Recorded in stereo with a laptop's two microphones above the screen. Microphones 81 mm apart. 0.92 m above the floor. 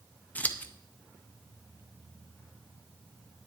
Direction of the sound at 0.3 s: 20° left (ahead or behind).